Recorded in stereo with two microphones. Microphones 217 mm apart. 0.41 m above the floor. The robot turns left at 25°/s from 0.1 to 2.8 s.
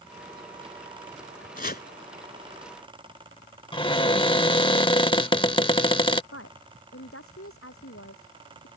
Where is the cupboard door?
25° left (ahead or behind).